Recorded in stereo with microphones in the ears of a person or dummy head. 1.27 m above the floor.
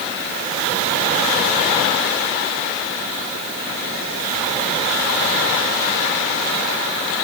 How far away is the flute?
No flute in this recording.